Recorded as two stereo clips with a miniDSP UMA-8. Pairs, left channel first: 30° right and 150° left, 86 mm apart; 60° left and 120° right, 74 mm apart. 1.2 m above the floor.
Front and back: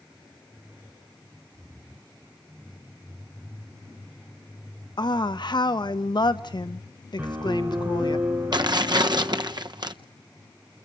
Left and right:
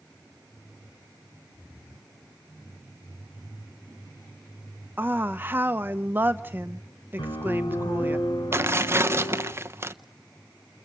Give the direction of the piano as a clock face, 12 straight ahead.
9 o'clock.